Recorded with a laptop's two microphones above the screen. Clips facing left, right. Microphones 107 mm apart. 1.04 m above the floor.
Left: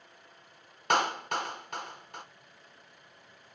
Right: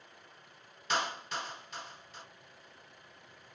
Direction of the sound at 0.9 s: 60° left (ahead or behind).